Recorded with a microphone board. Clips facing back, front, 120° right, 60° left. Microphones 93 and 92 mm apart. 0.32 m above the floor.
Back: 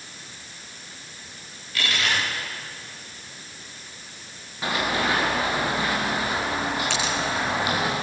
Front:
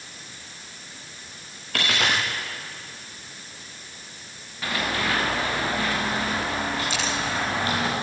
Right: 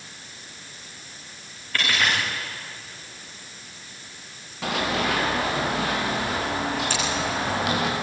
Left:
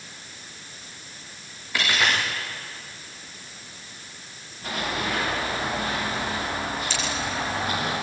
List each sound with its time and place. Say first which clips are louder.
1.7 s a dropped coin: front 2 dB, even; 20° right, 7 m
4.6 s running footsteps: back 2 dB, right 4 dB; 110° right, 8 m; by 7.9 s 105° right, 10 m
6.9 s scissors: back 2 dB, right 3 dB; 160° right, 6.5 m